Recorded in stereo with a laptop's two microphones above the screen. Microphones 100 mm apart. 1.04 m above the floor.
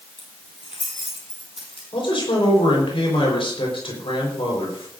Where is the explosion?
No explosion in this recording.